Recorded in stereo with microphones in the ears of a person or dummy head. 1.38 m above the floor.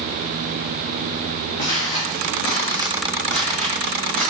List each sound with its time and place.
1.6 s footsteps: 40° left (ahead or behind), 3 m; by 4.3 s 5° left (ahead or behind), 3.5 m